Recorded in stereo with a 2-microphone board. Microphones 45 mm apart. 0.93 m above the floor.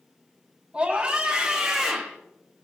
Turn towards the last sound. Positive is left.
turn(degrees=5)  # may be behind; listen again after turning